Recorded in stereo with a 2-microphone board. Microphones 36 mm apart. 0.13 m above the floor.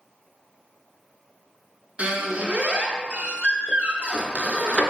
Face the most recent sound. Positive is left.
turn(degrees=-35)  # may be behind; listen again after turning